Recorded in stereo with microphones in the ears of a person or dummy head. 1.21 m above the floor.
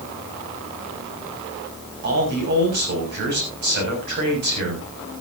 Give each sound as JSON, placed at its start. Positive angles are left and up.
{"t": 2.0, "sound": "a man speaking", "side_deg": -55, "distance_m": 7.0}